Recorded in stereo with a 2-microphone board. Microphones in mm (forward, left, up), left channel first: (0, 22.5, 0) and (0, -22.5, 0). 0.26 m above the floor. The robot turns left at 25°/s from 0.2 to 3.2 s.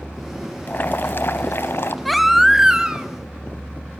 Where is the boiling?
125° left, 0.6 m; by 1.9 s 95° left, 0.6 m.